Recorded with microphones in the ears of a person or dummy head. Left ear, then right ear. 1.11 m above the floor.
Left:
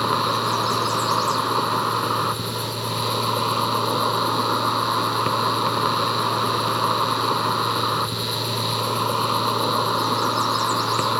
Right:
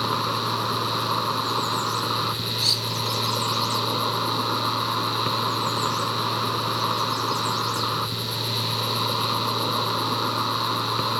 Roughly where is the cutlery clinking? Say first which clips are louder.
Right 5 dB; right.